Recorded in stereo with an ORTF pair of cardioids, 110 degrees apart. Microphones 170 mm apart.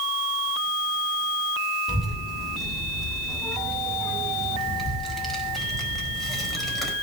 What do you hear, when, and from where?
1.9 s a child speaking: straight ahead, 7 m